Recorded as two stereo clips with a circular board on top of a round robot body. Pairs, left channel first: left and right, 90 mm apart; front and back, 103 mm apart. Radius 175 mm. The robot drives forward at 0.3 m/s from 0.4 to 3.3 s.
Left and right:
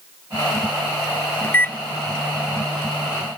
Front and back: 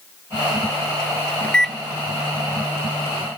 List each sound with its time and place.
1.4 s a microwave: 55° left, 0.5 m; by 3.3 s 165° left, 0.7 m